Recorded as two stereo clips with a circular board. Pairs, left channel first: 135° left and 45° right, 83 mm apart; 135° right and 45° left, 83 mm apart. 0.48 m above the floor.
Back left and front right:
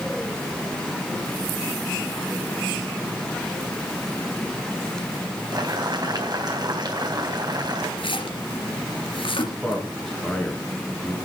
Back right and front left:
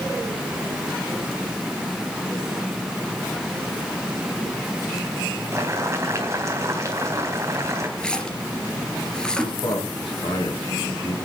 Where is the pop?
No pop in this recording.